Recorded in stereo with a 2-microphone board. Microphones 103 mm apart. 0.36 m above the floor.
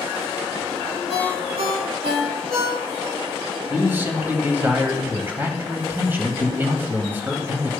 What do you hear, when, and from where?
1.1 s a ringtone: 75° right (ahead or behind), 7 m
3.7 s a man speaking: 20° right (ahead or behind), 2.5 m